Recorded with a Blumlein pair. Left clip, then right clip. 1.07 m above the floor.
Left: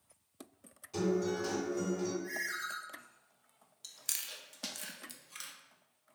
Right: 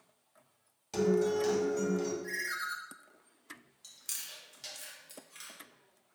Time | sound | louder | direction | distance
0.9 | a guitar | right 5 dB | 30° right | 1.7 m
2.2 | a ringtone | right 2 dB | 5° right | 0.8 m
3.8 | chewing | left 2 dB | 70° left | 0.5 m